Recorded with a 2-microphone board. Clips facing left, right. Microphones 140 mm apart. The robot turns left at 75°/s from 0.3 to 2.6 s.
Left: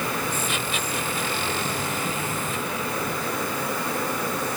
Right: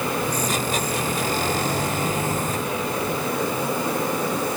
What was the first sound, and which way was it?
Only background noise.